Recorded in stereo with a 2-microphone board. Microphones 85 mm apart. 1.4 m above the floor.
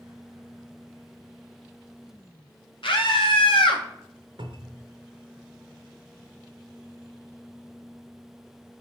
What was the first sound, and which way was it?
A scream, 80° left.